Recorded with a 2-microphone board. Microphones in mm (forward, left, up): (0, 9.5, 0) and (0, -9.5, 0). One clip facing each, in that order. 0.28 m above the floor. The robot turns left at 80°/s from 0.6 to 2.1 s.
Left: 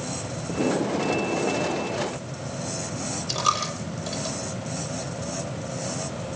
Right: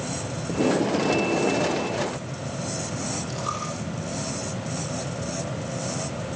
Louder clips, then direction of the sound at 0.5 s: Right 2 dB; 20° right.